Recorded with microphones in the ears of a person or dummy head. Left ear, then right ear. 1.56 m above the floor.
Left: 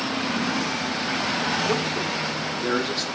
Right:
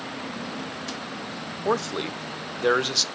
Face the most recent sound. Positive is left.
turn(degrees=-55)  # may be behind; listen again after turning